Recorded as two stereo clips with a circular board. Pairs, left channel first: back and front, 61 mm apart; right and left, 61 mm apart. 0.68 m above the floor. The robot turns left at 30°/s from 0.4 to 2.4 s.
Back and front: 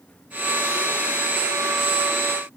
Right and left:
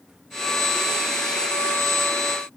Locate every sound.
Only background noise.